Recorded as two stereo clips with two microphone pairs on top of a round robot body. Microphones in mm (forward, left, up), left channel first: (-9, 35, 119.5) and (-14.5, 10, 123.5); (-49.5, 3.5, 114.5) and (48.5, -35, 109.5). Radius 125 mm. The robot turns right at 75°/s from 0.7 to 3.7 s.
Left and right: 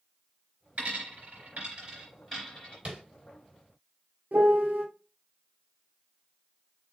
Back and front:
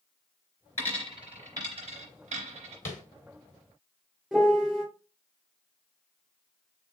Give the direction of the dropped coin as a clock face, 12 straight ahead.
5 o'clock.